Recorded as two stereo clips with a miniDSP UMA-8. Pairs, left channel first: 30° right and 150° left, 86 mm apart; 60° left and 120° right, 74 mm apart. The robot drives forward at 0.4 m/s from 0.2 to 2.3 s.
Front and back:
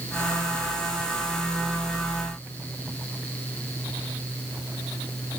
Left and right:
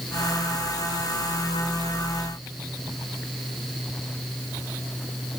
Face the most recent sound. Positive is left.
No sound to turn to.